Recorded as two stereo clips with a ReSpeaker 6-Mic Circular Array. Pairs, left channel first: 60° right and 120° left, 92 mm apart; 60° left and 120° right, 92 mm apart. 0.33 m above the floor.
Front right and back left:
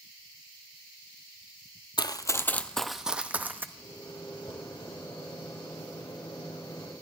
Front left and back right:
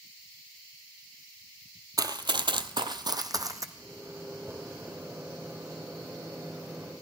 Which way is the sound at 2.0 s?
80° right.